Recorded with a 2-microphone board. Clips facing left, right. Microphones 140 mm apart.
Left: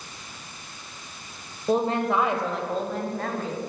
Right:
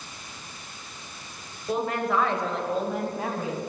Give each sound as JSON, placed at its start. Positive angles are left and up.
{"t": 1.7, "sound": "a woman speaking", "side_deg": 35, "distance_m": 1.4}